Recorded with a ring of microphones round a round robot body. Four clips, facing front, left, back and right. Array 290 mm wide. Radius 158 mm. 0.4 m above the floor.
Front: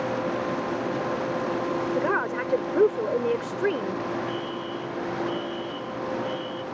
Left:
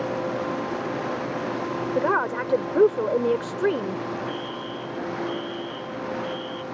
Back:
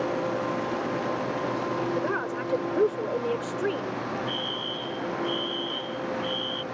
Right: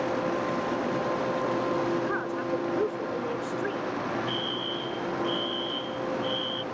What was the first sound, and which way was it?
A woman speaking, 70° left.